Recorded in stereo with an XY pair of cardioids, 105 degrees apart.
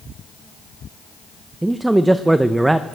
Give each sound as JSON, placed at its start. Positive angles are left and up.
{"t": 1.6, "sound": "a man speaking", "azimuth_deg": -15, "distance_m": 0.6}